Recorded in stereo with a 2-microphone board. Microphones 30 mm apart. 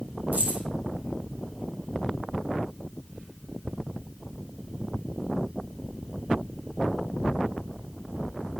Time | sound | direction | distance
0.3 | keys jangling | 60° right (ahead or behind) | 5.5 m